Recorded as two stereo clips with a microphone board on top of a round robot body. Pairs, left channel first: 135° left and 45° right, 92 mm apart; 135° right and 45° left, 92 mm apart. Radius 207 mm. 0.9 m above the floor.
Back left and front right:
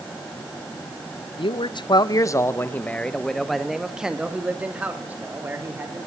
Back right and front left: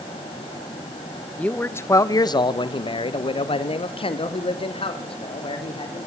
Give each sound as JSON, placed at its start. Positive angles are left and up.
{"t": 1.4, "sound": "a man speaking", "azimuth_deg": 150, "distance_m": 1.3}